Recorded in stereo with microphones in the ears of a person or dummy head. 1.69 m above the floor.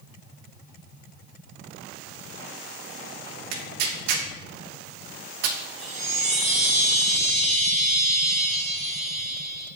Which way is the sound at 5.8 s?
40° right (ahead or behind).